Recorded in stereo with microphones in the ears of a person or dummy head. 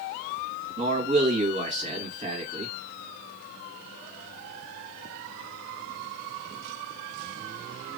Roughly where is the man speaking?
Right.